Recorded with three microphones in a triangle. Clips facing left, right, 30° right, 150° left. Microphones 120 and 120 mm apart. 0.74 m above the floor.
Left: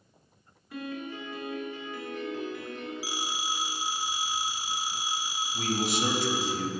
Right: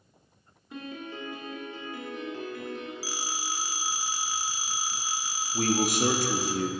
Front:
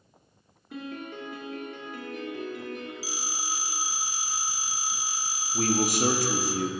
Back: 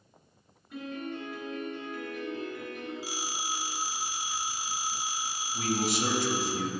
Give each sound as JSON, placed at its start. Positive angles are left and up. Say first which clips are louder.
{"t": 0.7, "sound": "a piano", "louder": "left 2 dB, even", "azimuth_deg": -25, "distance_m": 1.6}
{"t": 3.0, "sound": "a phone ringing", "louder": "left 1 dB, even", "azimuth_deg": 155, "distance_m": 0.8}
{"t": 5.5, "sound": "a man speaking", "louder": "right 4 dB, front 4 dB", "azimuth_deg": -60, "distance_m": 0.9}